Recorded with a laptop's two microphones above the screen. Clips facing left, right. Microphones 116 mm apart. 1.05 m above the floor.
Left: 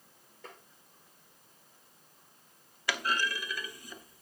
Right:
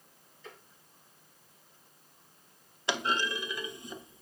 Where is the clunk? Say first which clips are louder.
Right 1 dB; 25° right (ahead or behind), 0.7 m.